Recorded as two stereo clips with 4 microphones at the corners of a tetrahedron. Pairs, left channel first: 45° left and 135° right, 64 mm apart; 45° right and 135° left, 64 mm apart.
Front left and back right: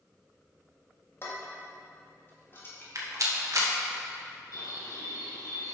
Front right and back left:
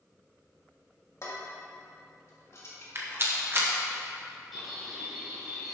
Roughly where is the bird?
Ahead left.